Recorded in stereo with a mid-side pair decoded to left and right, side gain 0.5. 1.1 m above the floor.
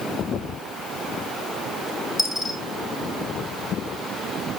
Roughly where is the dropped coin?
Ahead.